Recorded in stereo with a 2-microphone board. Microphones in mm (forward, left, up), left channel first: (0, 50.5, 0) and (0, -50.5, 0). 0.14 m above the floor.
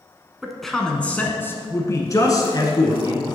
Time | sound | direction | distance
0.4 | a man speaking | centre (ahead or behind) | 1.1 m